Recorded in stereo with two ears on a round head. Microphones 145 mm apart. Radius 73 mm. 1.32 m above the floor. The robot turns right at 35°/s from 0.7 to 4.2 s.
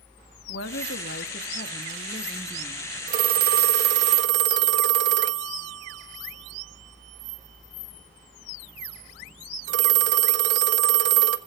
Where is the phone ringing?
55° right (ahead or behind), 1.4 m; by 11.4 s 80° right, 1.4 m.